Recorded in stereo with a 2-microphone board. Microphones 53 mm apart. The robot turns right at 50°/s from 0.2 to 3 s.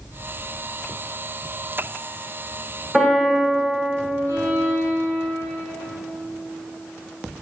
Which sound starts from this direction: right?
A violin, at 4.3 s.